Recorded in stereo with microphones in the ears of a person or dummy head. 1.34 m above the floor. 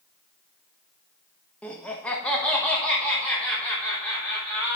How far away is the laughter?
About 1.0 m.